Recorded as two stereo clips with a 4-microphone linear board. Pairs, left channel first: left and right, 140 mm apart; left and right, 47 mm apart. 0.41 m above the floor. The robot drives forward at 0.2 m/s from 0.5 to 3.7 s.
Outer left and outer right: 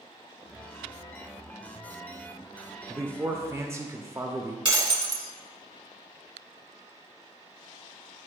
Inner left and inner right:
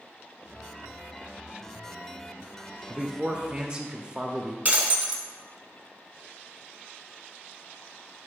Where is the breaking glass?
35° right (ahead or behind), 1.2 m.